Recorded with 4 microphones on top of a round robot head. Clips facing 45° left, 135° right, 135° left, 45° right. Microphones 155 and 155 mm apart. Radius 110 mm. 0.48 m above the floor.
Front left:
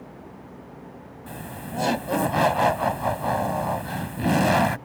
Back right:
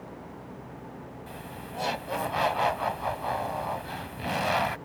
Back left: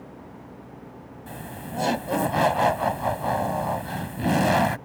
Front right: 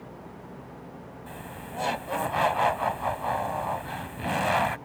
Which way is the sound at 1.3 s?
85° left.